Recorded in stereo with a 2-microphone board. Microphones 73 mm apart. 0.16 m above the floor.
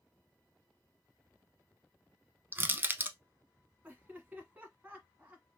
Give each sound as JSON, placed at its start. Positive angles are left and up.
{"t": 2.5, "sound": "crushing", "side_deg": -30, "distance_m": 0.5}
{"t": 3.8, "sound": "laughter", "side_deg": -20, "distance_m": 1.6}